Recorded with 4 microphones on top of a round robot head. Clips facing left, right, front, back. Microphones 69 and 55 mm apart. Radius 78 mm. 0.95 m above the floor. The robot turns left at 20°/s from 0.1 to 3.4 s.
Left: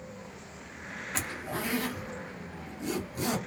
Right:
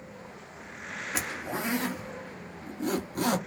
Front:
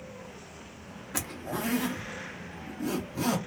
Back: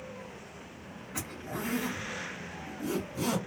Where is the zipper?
10° right, 0.7 m; by 3.4 s 55° right, 0.7 m.